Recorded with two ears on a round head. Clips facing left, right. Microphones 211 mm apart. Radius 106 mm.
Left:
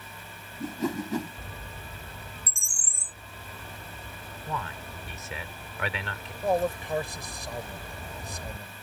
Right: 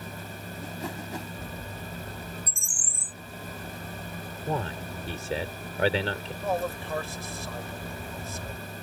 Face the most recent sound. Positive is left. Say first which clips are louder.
# left 4 dB
turn(degrees=15)  # may be behind; listen again after turning